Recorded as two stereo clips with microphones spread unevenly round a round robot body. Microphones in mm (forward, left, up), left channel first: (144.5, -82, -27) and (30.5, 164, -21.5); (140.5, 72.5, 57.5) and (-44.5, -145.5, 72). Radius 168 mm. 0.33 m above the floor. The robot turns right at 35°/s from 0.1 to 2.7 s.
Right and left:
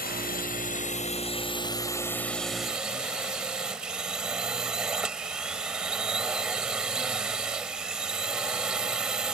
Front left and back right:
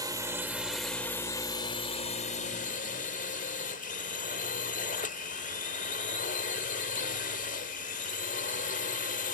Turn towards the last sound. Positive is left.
turn(degrees=30)